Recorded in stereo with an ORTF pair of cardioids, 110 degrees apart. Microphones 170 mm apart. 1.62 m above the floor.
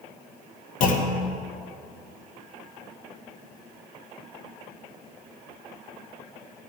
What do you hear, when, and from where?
0.8 s a clunk: 55° left, 1.3 m